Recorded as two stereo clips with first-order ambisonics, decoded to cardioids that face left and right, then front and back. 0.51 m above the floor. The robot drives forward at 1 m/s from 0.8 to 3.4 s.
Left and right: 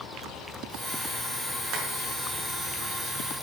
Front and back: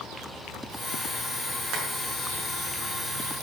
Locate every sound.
1.7 s tapping: 130° right, 6 m